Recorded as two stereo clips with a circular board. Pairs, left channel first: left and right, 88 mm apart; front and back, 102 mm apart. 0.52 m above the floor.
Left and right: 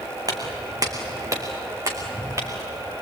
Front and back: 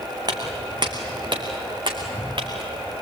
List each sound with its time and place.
0.3 s footsteps: 135° right, 2.5 m; by 2.9 s 145° right, 4 m